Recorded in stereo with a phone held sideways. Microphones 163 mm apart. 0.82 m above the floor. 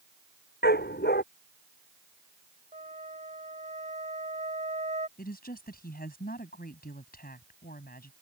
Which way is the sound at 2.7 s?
45° right (ahead or behind).